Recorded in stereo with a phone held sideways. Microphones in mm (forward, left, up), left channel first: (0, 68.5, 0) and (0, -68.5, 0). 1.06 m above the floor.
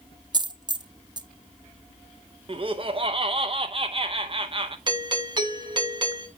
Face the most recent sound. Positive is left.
turn(degrees=-35)  # may be behind; listen again after turning